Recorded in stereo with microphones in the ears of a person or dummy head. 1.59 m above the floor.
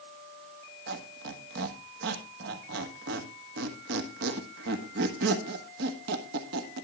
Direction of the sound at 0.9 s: 60° right (ahead or behind).